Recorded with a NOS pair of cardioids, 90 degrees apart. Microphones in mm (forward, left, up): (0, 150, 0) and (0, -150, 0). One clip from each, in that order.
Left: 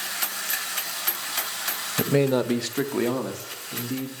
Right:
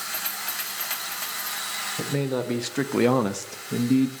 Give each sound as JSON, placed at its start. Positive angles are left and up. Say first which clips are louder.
{"t": 2.0, "sound": "a man speaking", "louder": "left 8 dB", "azimuth_deg": 35, "distance_m": 0.7}